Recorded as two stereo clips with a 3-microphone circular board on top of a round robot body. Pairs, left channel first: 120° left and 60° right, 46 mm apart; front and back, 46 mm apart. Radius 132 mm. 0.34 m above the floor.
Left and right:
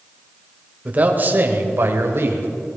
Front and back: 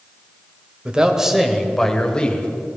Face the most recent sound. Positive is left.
turn(degrees=-60)